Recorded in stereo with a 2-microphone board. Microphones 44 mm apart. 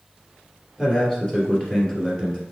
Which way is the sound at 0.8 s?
15° left (ahead or behind).